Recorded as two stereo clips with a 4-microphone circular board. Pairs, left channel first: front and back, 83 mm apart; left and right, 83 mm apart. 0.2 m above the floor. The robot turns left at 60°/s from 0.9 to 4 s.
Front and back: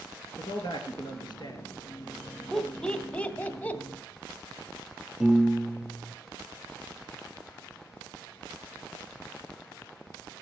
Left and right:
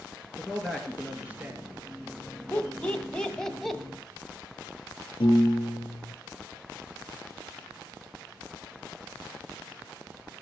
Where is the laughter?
75° left, 1.1 m; by 3.8 s straight ahead, 1.1 m.